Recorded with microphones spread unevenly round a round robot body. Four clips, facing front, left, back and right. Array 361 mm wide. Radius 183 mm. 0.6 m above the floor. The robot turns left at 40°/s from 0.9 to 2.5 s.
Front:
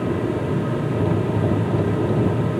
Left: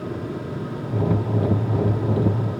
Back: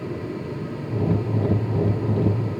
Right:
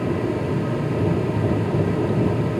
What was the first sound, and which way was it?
Only background noise.